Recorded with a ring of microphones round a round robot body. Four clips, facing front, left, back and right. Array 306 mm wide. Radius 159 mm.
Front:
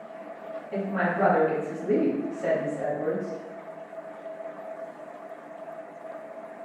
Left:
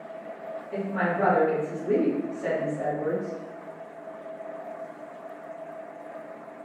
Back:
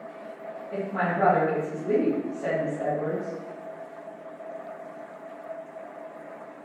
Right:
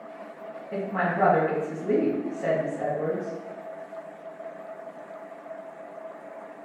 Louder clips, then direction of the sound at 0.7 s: Even, even; 75° right.